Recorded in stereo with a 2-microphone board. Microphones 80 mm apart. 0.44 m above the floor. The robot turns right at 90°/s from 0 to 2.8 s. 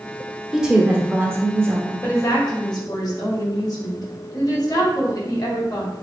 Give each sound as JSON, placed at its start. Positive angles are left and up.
{"t": 0.5, "sound": "a woman speaking", "side_deg": -5, "distance_m": 1.0}
{"t": 2.0, "sound": "a woman speaking", "azimuth_deg": 35, "distance_m": 1.8}